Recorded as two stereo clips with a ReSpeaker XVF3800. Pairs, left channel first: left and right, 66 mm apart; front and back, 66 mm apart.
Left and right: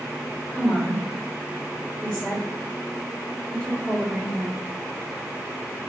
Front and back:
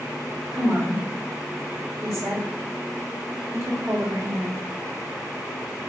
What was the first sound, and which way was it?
A woman speaking, 165° left.